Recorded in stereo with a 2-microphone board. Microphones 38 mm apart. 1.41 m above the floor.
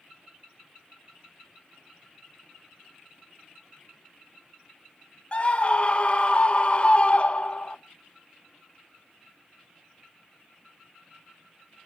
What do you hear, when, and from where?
5.3 s a scream: 35° left (ahead or behind), 0.7 m